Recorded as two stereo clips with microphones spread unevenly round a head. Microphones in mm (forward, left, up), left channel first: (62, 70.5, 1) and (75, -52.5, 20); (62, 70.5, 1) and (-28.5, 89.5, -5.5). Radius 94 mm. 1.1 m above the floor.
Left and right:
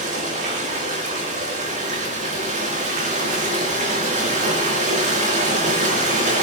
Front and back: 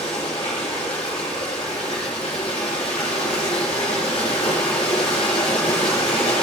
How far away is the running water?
About 3.5 m.